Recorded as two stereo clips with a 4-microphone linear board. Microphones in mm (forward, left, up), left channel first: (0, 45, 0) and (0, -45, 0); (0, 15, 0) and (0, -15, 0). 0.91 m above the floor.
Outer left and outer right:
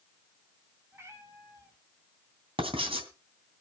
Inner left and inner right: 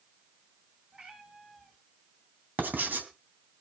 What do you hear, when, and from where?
0.9 s a cat meowing: 30° right (ahead or behind), 3 m
2.6 s writing: 85° right, 3 m